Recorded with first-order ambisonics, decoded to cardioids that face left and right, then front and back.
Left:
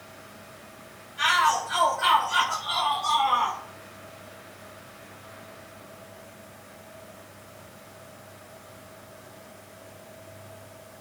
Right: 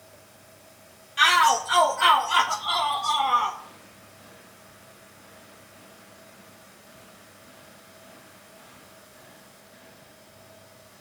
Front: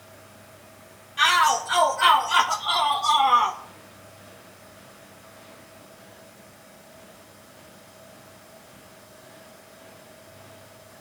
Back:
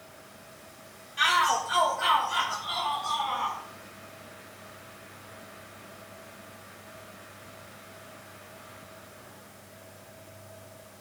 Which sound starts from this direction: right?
A shout, at 1.2 s.